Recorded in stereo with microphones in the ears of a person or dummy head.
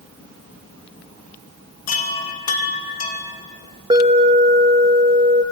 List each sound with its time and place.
1.9 s a chime: 35° left (ahead or behind), 1.9 m
3.9 s an alarm: 20° right (ahead or behind), 2 m